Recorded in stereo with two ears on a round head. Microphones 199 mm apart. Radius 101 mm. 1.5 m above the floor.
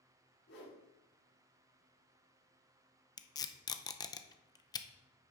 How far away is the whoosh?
About 4.5 m.